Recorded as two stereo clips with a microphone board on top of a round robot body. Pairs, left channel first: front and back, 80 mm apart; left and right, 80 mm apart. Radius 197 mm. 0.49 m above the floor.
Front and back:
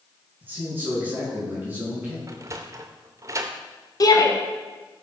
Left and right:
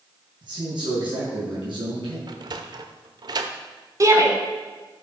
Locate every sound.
0.4 s a man speaking: 115° right, 6.5 m
2.3 s a sliding door: 125° right, 0.5 m
4.0 s a shout: 40° right, 2.5 m